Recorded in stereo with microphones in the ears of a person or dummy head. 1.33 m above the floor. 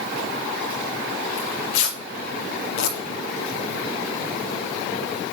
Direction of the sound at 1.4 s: 75° left (ahead or behind).